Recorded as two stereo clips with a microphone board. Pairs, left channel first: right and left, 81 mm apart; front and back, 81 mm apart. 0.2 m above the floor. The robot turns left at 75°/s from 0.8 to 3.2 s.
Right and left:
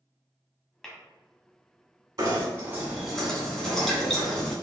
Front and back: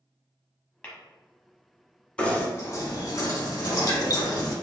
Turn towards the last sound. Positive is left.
turn(degrees=-5)